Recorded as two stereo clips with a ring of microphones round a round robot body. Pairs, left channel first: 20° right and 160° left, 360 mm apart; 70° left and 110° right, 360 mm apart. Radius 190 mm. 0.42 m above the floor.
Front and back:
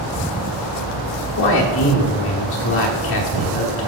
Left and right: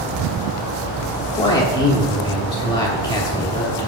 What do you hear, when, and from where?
1.2 s a man speaking: straight ahead, 1.1 m